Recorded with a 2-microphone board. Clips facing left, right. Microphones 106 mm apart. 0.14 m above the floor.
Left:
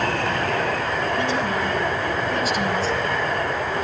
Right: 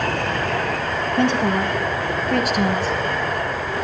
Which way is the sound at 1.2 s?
65° right (ahead or behind).